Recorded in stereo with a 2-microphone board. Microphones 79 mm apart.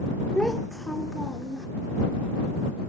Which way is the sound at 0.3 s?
10° left (ahead or behind).